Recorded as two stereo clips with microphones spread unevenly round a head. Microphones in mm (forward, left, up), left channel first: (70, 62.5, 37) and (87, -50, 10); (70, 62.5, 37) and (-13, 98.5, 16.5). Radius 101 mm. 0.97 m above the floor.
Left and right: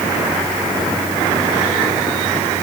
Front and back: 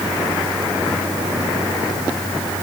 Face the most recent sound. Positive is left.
No sound to turn to.